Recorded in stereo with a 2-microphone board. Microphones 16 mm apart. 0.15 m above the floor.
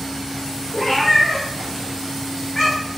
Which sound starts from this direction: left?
A cat meowing, at 0.7 s.